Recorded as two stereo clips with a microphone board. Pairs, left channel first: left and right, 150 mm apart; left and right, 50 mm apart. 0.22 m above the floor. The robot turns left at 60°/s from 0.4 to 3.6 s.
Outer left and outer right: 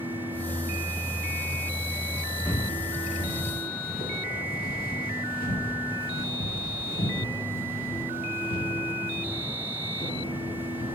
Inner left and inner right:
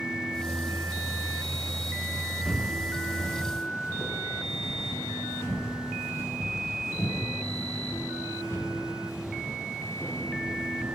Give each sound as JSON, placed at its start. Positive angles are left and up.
{"t": 2.5, "sound": "footsteps", "side_deg": 10, "distance_m": 1.4}